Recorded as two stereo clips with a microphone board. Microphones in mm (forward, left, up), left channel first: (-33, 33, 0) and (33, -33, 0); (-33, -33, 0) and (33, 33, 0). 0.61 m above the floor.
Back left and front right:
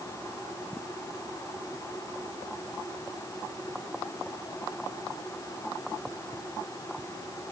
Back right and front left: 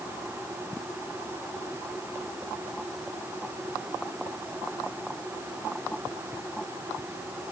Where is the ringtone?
No ringtone in this recording.